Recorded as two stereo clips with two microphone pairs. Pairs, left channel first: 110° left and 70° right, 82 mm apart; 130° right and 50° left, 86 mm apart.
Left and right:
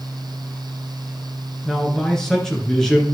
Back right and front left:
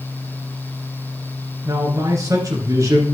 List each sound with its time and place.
1.6 s a man speaking: 25° left, 2 m